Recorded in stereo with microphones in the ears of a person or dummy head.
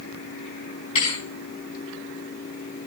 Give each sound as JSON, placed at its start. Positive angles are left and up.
{"t": 0.9, "sound": "a thud", "side_deg": 35, "distance_m": 5.0}